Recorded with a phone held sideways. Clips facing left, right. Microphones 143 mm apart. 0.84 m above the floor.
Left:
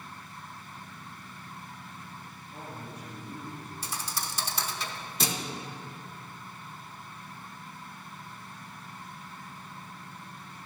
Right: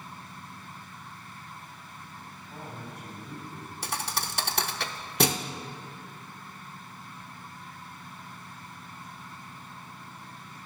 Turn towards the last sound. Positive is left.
turn(degrees=-60)  # may be behind; listen again after turning